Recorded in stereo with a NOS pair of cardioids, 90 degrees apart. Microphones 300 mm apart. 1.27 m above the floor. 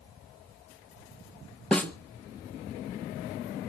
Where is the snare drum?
5° left, 1.5 m.